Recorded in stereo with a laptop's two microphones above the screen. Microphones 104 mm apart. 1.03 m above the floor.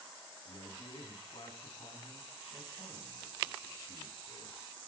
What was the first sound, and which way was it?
A man speaking, 55° left (ahead or behind).